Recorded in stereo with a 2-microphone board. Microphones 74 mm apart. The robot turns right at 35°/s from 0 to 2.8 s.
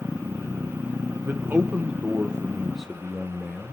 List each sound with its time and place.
1.2 s a man speaking: 55° right, 0.8 m; by 3.7 s straight ahead, 0.8 m